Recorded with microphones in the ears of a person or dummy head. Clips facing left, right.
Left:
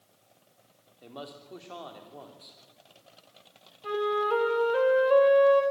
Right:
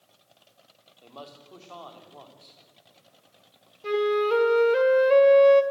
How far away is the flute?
About 1.8 m.